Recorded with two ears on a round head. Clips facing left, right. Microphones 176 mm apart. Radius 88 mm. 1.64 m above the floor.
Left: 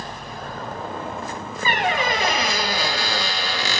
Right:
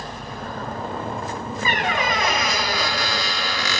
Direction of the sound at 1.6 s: 25° left (ahead or behind).